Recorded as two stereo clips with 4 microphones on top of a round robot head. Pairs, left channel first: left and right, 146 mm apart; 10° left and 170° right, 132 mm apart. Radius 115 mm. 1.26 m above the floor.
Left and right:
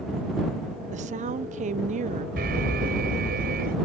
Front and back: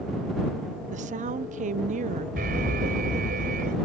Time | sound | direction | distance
0.9 | a woman speaking | 135° right | ?
2.4 | an alarm | 130° right | ?